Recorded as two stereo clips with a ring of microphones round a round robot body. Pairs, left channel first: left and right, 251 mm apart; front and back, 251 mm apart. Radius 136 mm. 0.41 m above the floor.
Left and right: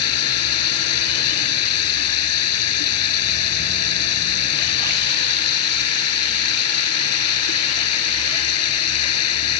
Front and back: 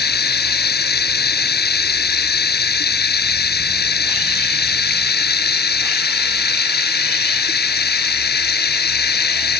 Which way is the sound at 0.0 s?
50° left.